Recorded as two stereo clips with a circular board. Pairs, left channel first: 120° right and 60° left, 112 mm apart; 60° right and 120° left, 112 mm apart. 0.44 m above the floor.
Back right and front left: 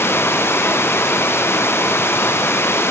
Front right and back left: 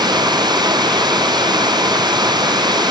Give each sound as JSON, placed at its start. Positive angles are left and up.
{"t": 0.0, "sound": "running water", "azimuth_deg": 170}